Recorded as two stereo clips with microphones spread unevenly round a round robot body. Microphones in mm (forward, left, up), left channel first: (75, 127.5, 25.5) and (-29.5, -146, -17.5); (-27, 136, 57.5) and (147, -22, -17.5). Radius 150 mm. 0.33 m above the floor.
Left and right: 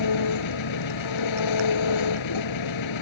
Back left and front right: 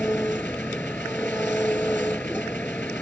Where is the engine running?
55° left.